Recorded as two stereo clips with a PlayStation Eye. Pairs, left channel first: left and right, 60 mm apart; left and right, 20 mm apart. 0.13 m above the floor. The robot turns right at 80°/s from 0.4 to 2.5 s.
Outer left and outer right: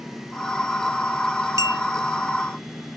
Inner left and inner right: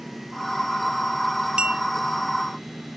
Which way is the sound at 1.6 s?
60° right (ahead or behind).